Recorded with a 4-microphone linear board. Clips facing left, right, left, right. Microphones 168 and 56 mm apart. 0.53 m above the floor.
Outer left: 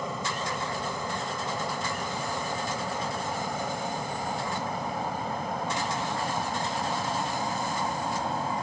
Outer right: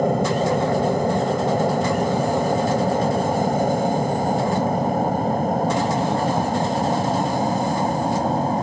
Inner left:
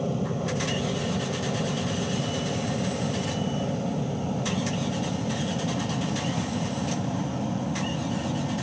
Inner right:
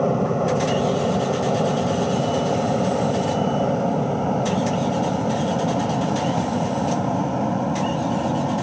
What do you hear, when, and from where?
0.0 s an aircraft: 55° right (ahead or behind); by 8.6 s 45° right (ahead or behind)